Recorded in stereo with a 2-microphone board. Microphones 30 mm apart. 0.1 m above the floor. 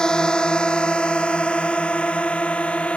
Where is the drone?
30° left (ahead or behind); by 3.0 s 45° left (ahead or behind).